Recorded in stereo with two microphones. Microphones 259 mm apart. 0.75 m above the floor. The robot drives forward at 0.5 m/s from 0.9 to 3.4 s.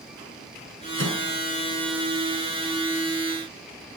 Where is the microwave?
55° right (ahead or behind), 7 m.